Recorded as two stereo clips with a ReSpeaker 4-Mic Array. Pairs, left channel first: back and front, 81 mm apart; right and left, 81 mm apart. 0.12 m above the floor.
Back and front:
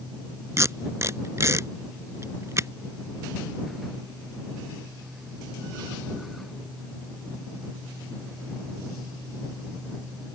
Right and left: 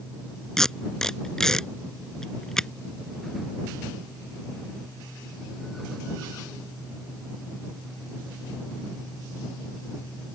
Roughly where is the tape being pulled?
Ahead.